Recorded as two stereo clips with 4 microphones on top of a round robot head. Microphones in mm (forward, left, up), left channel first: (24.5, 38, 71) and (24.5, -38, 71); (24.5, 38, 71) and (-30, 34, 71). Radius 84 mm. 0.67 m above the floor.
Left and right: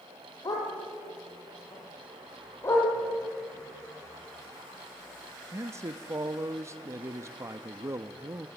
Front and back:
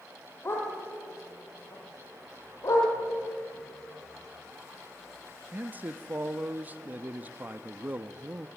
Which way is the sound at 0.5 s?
50° left.